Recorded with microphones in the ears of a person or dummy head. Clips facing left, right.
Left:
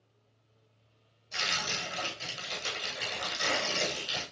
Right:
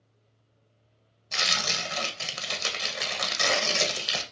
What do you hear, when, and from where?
1.3 s tearing paper: 80° right, 1.0 m